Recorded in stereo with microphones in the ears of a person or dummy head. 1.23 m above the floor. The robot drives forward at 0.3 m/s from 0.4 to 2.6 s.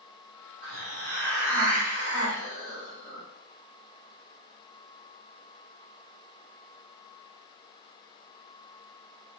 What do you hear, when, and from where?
0.6 s a hiss: 65° right (ahead or behind), 1.2 m; by 3.2 s 50° right (ahead or behind), 1.4 m